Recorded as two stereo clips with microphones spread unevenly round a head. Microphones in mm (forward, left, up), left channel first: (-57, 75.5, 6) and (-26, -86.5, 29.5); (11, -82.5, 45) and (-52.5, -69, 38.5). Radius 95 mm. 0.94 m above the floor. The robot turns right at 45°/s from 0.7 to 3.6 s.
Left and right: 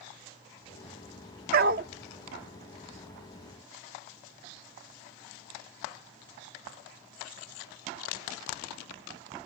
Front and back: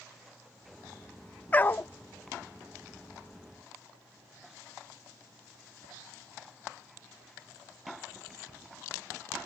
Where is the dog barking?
70° right; by 1.9 s 55° right.